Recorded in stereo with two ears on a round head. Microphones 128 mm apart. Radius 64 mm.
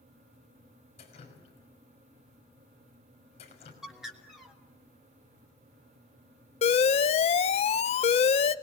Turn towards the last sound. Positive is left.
turn(degrees=45)  # may be behind; listen again after turning